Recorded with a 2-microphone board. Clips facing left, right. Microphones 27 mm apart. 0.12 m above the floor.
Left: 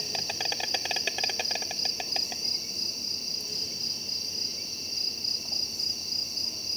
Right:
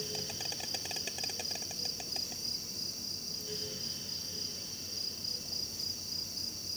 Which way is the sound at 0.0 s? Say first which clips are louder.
Left 7 dB; 50° left (ahead or behind).